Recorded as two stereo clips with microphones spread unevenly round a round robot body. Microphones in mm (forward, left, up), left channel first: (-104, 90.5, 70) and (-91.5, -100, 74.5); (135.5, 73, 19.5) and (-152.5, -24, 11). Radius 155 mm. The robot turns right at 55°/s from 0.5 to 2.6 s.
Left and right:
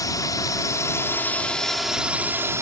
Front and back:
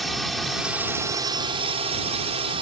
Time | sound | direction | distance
0.0 | a drone | 110° left | ?